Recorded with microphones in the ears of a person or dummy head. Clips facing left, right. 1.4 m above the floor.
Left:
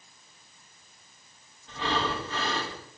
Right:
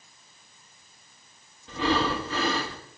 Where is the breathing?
60° right (ahead or behind), 3.5 m.